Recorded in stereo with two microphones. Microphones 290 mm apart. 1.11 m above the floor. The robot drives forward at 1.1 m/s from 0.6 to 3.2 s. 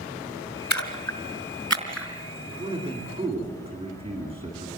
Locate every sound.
0.7 s a splash: 70° left (ahead or behind), 2.5 m; by 2.1 s 50° left (ahead or behind), 3 m
2.5 s a man speaking: 20° right (ahead or behind), 9.5 m